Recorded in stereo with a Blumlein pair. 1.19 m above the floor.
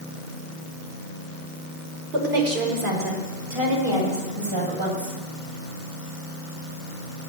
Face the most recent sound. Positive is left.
turn(degrees=-55)